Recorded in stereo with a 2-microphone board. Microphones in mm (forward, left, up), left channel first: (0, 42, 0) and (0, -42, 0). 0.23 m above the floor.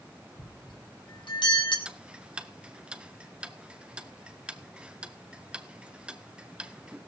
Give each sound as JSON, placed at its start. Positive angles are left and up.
{"t": 0.4, "sound": "a bell", "side_deg": 80, "distance_m": 3.5}
{"t": 1.9, "sound": "ticking", "side_deg": -10, "distance_m": 1.0}